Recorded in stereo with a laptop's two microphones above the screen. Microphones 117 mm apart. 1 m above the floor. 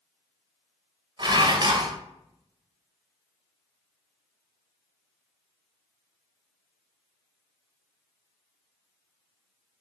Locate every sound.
1.2 s dishes clattering: 40° right (ahead or behind), 0.7 m